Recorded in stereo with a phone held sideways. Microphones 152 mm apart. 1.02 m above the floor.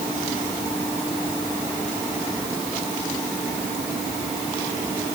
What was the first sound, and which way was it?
Only background noise.